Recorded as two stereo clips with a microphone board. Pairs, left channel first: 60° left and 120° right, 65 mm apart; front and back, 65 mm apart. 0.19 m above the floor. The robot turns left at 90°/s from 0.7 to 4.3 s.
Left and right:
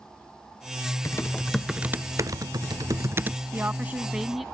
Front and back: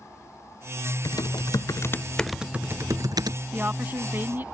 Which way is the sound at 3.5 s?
135° right.